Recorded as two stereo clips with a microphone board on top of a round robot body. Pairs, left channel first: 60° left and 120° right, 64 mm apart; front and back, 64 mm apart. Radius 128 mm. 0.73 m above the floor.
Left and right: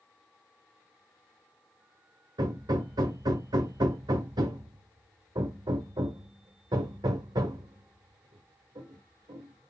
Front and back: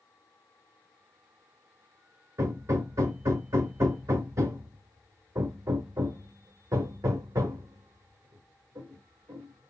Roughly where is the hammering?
Behind right.